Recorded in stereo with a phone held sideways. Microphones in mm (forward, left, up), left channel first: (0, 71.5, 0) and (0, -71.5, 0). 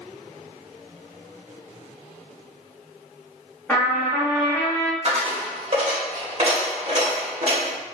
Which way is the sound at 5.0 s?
45° right (ahead or behind).